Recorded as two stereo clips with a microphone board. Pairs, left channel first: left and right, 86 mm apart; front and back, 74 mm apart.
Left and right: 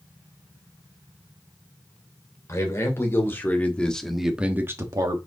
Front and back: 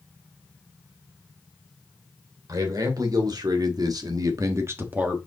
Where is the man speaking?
145° left, 3 m; by 5.2 s 110° right, 1.4 m.